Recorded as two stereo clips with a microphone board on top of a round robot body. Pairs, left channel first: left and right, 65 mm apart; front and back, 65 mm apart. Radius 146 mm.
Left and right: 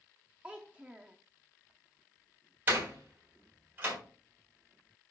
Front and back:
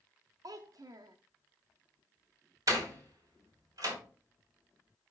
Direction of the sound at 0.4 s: 165° right.